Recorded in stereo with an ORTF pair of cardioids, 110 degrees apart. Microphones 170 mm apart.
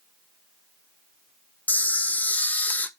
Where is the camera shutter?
10° left, 0.8 m.